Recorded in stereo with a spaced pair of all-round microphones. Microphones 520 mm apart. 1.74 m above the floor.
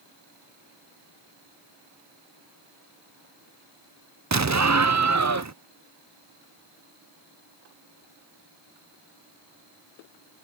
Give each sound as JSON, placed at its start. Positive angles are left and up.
{"t": 4.3, "sound": "an explosion", "side_deg": -35}